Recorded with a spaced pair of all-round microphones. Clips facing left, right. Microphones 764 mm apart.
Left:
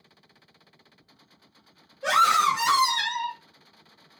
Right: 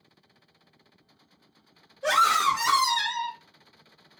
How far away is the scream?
About 1.0 m.